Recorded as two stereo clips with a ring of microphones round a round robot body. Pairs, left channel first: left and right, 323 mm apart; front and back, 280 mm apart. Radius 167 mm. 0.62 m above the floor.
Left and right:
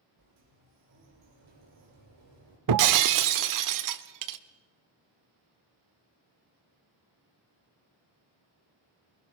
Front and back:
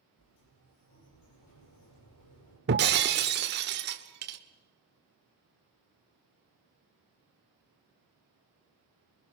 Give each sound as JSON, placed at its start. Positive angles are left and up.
{"t": 0.2, "sound": "a sliding door", "azimuth_deg": -45, "distance_m": 9.0}
{"t": 2.7, "sound": "breaking glass", "azimuth_deg": -120, "distance_m": 1.3}